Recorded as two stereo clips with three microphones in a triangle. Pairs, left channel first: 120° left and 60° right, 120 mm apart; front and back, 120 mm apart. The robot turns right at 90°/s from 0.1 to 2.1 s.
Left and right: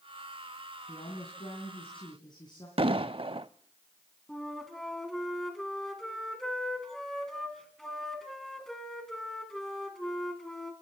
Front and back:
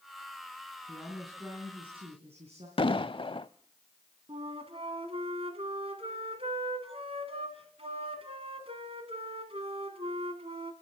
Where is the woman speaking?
55° left, 3 m; by 2.7 s 165° left, 3 m.